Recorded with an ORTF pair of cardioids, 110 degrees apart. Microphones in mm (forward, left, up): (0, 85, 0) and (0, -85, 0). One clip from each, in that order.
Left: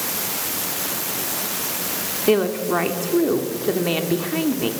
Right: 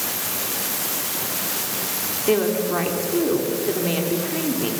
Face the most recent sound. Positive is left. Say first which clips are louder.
# left 1 dB
turn(degrees=30)